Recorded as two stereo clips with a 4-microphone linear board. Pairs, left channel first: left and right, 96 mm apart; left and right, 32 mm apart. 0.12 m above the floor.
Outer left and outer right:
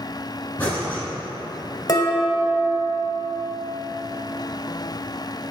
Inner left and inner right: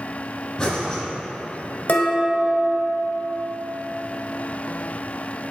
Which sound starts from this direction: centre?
Breathing, at 0.6 s.